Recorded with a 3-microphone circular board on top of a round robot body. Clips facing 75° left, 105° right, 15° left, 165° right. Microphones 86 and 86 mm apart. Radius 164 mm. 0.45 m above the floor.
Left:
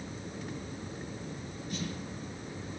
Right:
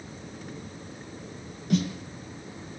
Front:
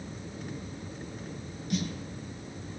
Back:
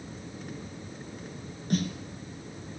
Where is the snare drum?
115° right, 4 m.